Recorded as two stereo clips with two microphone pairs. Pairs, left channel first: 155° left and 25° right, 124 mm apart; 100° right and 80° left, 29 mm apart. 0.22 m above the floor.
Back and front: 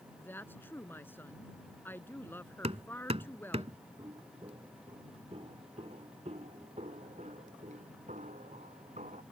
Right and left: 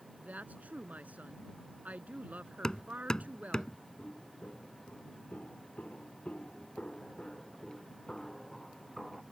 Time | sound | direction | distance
0.2 | a woman speaking | 85° left | ?
2.6 | hammering | 40° right | ?
4.0 | footsteps | 75° right | ?